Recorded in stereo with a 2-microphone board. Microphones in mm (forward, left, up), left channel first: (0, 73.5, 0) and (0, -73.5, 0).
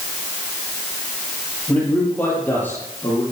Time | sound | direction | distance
1.7 | a man speaking | 10° left (ahead or behind) | 7.5 m